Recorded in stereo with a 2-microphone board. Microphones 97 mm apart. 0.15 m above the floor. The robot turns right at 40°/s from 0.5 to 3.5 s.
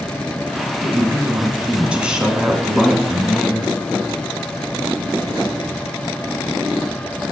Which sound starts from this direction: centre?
A woman speaking, at 0.8 s.